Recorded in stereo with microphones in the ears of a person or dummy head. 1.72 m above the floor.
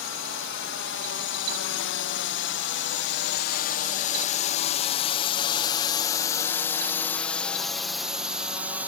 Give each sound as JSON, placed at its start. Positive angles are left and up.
{"t": 0.0, "sound": "a drone", "side_deg": 65}